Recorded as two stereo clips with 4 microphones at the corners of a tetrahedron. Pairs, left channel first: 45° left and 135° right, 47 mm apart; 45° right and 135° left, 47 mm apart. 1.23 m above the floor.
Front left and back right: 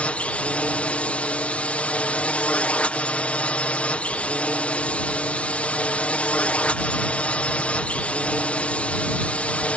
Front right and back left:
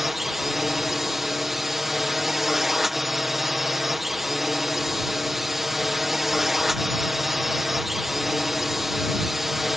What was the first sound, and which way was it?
A drone, 55° left.